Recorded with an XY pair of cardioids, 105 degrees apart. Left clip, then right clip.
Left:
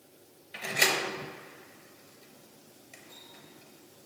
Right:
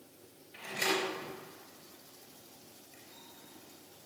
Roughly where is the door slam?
Left.